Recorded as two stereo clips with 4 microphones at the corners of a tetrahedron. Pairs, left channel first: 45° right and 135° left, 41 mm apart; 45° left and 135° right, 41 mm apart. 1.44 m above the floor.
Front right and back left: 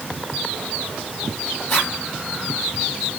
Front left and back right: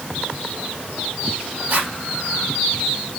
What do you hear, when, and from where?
1.7 s a zipper: 80° right, 8.5 m